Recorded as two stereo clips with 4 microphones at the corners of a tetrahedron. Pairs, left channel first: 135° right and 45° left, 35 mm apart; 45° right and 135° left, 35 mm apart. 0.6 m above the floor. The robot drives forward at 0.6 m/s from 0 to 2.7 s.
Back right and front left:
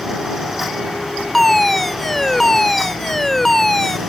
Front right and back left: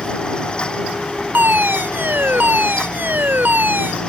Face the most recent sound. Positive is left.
turn(degrees=145)